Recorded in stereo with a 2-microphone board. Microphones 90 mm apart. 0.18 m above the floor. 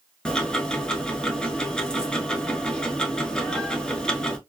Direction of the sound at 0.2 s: 10° left (ahead or behind).